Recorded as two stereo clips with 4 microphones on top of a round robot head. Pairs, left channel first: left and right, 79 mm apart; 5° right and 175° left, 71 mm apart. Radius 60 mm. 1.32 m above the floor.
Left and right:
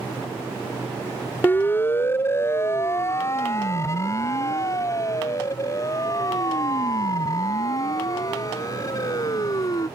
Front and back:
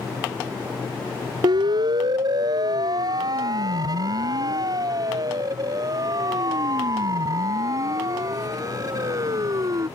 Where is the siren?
155° left; by 9.9 s 135° left.